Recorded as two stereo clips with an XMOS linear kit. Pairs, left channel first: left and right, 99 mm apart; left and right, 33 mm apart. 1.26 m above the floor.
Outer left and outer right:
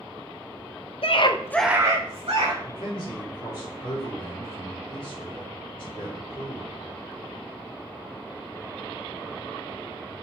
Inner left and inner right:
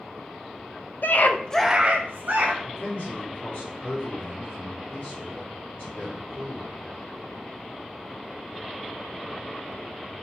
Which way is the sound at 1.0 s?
65° left (ahead or behind).